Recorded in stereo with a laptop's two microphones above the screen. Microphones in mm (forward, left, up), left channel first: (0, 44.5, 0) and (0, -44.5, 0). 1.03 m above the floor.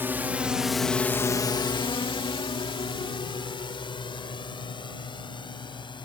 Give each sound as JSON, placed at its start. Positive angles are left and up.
{"t": 0.0, "sound": "a drone", "side_deg": -25}